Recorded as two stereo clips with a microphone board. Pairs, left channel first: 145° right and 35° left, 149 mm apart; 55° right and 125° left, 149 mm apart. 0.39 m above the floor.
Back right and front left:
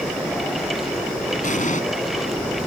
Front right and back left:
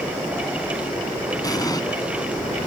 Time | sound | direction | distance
1.4 | an explosion | 120° right | ?